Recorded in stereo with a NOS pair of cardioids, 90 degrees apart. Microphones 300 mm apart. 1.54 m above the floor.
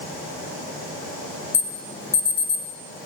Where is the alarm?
20° left, 0.9 m.